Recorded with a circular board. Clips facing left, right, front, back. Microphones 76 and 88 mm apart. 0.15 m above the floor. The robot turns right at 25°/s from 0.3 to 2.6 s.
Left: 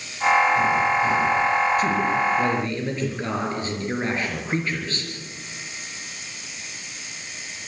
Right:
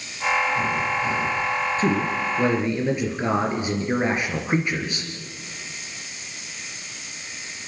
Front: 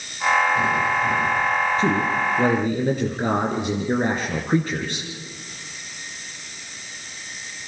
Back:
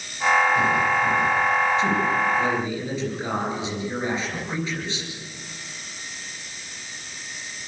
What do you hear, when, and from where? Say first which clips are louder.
1.8 s a man speaking: left 1 dB, front 1 dB; 40° right, 3 m; by 5.1 s 20° right, 3 m